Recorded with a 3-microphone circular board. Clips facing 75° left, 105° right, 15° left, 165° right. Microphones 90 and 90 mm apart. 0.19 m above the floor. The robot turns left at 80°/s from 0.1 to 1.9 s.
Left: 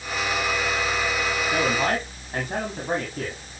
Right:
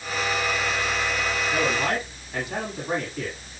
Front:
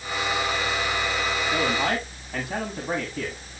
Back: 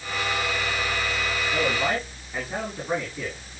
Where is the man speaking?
60° left, 6.5 m; by 3.4 s 30° left, 6.5 m.